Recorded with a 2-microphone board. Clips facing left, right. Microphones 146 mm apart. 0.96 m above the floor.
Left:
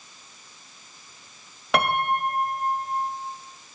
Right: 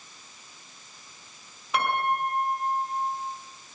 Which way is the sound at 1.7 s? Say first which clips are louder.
Left 3 dB; 80° left.